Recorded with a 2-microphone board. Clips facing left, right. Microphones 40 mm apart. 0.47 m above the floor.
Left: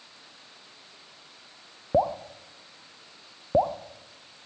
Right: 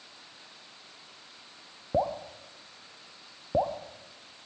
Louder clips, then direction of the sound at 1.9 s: Left 4 dB; 20° left (ahead or behind).